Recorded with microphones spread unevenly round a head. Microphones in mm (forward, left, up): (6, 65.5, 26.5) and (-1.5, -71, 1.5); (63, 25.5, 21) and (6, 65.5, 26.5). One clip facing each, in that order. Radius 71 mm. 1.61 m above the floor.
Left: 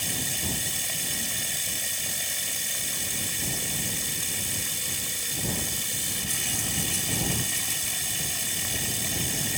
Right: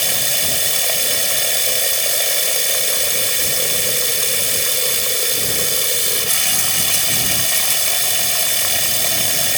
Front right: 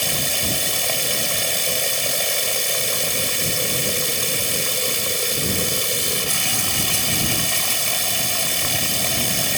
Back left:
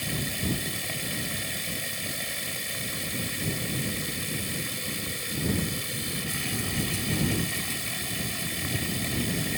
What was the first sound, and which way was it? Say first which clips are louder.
Running water: right 8 dB, front right 5 dB; 75° right.